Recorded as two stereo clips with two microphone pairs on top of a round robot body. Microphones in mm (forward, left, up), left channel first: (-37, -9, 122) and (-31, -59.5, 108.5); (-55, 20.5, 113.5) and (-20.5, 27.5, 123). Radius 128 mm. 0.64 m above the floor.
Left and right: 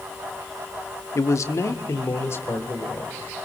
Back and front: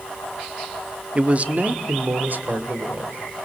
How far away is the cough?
No cough in this recording.